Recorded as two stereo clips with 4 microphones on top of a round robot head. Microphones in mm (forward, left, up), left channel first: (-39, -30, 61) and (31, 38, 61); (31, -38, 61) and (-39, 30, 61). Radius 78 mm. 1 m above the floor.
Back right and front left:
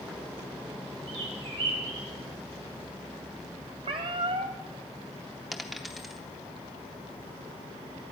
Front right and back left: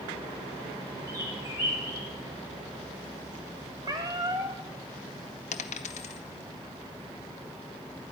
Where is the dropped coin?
45° right, 0.7 m.